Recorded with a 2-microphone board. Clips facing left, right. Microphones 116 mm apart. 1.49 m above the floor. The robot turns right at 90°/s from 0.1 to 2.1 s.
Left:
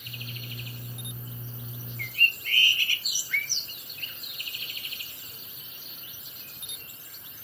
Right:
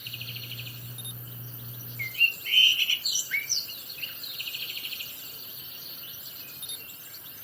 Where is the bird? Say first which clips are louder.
Left 2 dB; 35° left (ahead or behind), 0.5 m; by 3.7 s 45° left (ahead or behind), 0.5 m.